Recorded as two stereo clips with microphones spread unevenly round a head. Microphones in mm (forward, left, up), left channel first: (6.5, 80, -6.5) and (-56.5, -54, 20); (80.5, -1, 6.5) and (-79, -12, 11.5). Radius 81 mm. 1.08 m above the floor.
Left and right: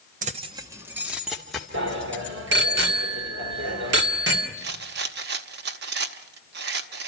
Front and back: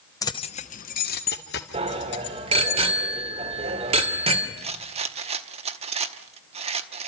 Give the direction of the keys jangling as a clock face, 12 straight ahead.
2 o'clock.